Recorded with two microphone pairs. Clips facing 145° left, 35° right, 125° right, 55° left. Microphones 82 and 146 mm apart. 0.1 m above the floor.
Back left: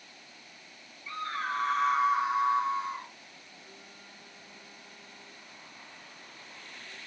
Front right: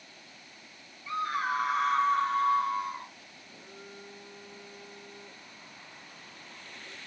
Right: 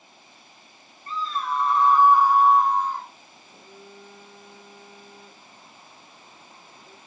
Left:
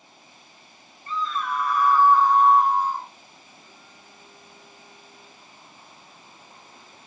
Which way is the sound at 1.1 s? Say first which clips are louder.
Front right 4 dB, even; 95° right.